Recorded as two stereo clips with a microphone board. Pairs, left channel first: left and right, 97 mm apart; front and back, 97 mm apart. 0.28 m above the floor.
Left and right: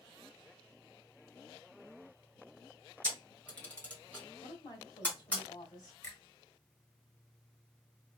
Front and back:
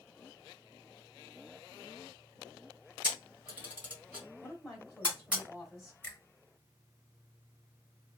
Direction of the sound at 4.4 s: 90° left.